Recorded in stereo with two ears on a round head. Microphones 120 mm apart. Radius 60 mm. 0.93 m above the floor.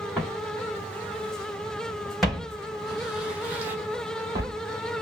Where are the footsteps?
10° left (ahead or behind), 3 m; by 4.5 s 30° right (ahead or behind), 1.1 m.